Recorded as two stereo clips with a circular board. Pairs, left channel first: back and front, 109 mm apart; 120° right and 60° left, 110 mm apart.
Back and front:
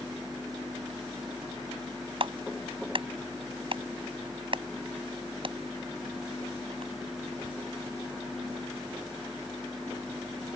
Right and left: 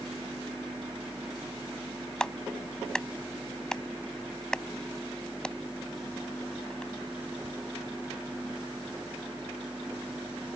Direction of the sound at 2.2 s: 35° right.